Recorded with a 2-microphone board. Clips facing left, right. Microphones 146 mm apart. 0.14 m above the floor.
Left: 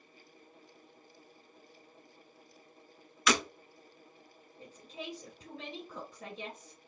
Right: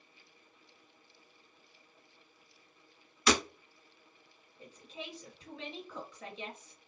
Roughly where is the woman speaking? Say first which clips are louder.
Left 2 dB; left.